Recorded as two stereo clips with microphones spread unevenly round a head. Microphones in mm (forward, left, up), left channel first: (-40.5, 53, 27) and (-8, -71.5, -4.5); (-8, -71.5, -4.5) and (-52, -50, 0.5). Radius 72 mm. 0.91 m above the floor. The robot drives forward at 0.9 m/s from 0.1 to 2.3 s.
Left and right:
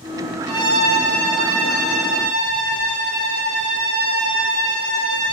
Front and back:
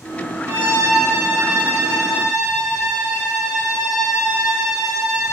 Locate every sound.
0.5 s a violin: 170° left, 4.5 m; by 5.3 s 175° left, 6 m